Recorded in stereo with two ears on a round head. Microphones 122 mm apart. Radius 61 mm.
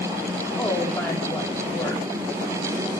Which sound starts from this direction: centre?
A woman speaking, at 0.6 s.